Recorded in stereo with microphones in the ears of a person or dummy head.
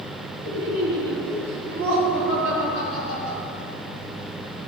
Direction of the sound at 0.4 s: 80° right.